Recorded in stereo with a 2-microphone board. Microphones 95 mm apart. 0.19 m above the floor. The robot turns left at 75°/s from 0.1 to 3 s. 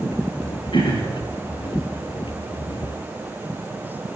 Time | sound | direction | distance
0.7 | throat clearing | 75° left | 2.5 m